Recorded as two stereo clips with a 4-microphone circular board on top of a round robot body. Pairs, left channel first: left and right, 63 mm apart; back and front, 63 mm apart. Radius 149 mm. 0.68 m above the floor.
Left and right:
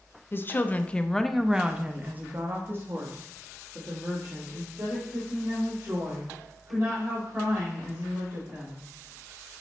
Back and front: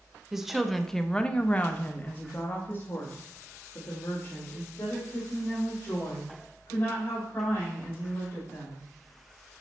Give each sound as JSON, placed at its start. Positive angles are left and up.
{"t": 0.3, "sound": "a woman speaking", "azimuth_deg": 75, "distance_m": 0.9}